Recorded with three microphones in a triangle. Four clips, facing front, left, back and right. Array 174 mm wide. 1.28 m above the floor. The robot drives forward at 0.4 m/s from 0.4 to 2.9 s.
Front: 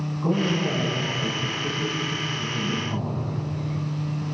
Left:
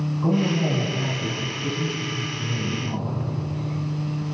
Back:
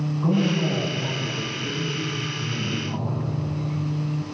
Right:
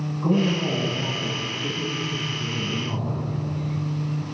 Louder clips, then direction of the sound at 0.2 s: Even, back 1 dB; 110° left.